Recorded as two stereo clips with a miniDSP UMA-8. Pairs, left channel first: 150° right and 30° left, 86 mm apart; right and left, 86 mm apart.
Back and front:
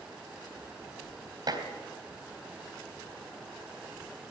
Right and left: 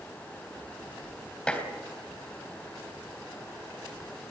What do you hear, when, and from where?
1.5 s dishes clattering: 10° right, 3.5 m